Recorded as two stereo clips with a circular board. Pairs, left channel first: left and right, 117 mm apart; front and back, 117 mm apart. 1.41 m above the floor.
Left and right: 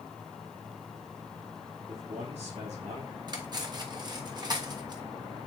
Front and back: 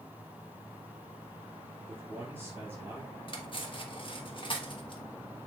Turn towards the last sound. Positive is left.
turn(degrees=-40)